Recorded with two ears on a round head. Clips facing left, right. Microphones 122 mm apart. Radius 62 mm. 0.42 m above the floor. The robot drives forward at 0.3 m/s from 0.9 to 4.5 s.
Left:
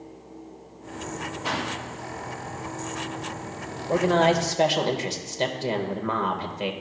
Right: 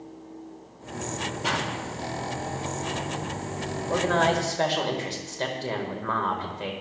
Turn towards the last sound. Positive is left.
turn(degrees=20)  # may be behind; listen again after turning